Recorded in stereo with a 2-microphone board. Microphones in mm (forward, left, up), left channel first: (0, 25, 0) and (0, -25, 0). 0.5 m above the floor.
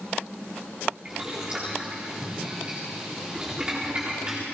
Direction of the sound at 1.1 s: 20° right (ahead or behind).